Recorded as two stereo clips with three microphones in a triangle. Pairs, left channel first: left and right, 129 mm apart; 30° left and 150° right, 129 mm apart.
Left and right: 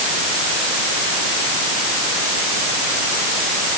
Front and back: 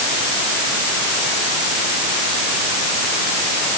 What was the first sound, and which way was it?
Only background noise.